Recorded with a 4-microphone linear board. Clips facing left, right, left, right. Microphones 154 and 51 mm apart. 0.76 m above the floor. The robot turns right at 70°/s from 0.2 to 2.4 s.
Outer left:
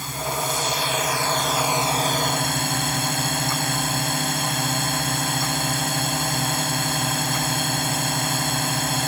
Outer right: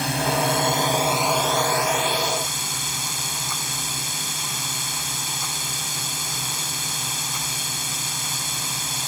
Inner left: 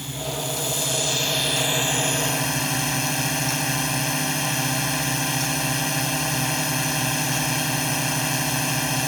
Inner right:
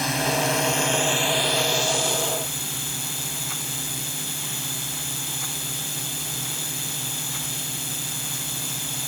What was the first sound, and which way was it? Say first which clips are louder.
A drone: outer right 5 dB, inner right 7 dB; 90° right.